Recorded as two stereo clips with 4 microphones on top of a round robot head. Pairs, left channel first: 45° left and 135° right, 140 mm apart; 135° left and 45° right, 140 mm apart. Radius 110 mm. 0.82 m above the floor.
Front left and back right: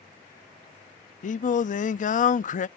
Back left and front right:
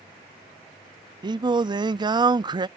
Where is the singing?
15° left.